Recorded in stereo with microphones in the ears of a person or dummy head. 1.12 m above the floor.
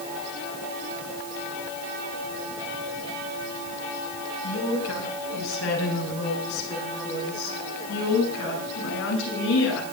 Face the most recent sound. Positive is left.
turn(degrees=75)  # may be behind; listen again after turning